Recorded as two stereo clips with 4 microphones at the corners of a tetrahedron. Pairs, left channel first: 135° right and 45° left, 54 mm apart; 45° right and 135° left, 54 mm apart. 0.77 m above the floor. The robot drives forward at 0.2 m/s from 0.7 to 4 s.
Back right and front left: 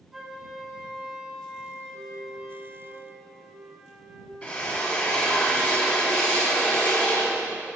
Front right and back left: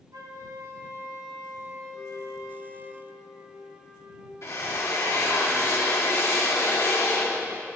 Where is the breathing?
I don't hear breathing.